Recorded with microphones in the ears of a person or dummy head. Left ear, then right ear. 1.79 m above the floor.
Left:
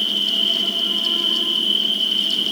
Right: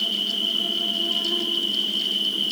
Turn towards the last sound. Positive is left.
turn(degrees=40)  # may be behind; listen again after turning